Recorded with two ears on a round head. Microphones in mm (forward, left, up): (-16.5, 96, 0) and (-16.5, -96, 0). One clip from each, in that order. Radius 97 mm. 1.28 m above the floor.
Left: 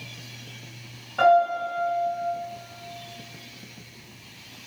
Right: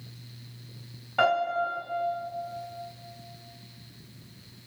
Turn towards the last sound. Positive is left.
turn(degrees=-20)  # may be behind; listen again after turning